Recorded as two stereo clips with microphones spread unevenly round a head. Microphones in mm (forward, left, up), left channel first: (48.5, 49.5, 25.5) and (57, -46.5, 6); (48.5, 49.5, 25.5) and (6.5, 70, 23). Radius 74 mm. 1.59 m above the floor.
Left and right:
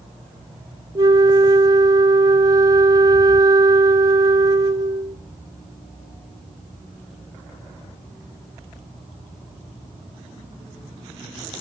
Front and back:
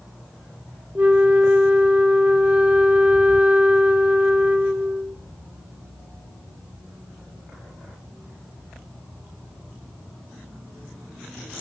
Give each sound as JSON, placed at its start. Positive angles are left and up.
{"t": 0.9, "sound": "a flute", "azimuth_deg": -140, "distance_m": 0.6}